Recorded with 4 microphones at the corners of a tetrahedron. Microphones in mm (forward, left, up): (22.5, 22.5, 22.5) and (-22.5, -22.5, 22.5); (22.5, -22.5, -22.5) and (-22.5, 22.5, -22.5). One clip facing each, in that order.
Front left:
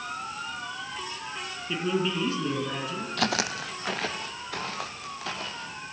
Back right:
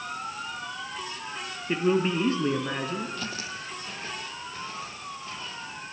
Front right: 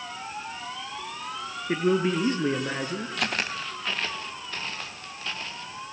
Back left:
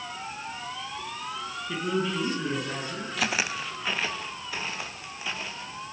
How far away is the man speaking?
About 3 m.